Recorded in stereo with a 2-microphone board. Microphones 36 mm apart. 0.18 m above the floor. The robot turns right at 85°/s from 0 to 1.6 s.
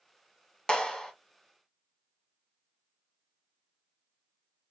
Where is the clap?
25° left (ahead or behind), 0.9 m; by 1.1 s 15° left (ahead or behind), 0.9 m.